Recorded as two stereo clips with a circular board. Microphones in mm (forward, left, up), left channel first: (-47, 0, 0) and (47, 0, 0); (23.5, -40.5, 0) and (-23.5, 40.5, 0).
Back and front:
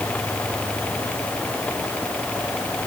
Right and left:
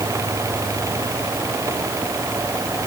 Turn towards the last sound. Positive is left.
No sound to turn to.